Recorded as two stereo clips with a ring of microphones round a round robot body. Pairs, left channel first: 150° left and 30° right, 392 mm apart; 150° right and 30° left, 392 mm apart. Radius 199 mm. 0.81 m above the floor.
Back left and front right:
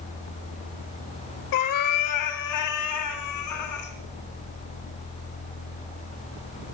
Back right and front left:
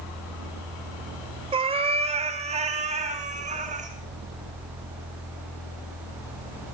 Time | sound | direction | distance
1.5 | a cat meowing | 105° left | 1.4 m